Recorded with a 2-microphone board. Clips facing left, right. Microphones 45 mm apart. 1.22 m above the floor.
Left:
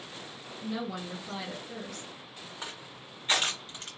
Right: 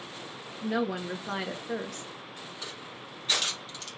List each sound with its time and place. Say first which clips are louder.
0.6 s a woman speaking: right 6 dB; 60° right (ahead or behind), 1.1 m
2.6 s crushing: right 1 dB; 30° left (ahead or behind), 1.9 m